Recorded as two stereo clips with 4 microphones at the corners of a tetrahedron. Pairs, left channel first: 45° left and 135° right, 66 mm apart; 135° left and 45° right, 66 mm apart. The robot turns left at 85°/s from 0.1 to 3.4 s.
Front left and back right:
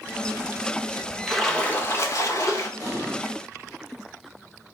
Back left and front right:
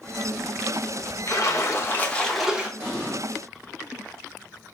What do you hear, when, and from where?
1.3 s a splash: 140° left, 0.7 m; by 2.7 s 20° left, 0.7 m
2.8 s an explosion: 20° left, 1.7 m; by 3.2 s 15° right, 1.7 m